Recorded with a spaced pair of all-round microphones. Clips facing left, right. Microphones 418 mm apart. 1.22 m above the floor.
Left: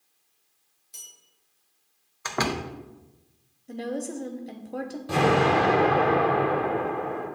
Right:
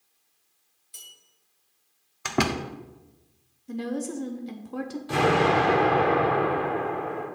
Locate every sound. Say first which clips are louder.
0.9 s a bell: even; 60° left (ahead or behind), 2.0 m
2.2 s a door slam: right 3 dB; 45° right (ahead or behind), 0.5 m
3.7 s a woman speaking: right 1 dB; 15° right (ahead or behind), 0.6 m
5.1 s an explosion: left 1 dB; 60° left (ahead or behind), 3.5 m